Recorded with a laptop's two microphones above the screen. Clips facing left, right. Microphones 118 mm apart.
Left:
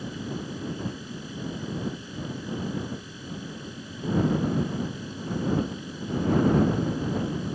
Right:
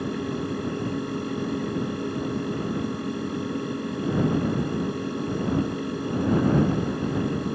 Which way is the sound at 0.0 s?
65° right (ahead or behind).